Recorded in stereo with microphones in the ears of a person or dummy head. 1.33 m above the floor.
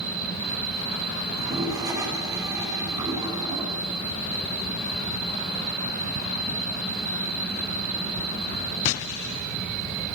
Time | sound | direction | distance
1.3 | a toilet flushing | 20° right (ahead or behind) | 7 m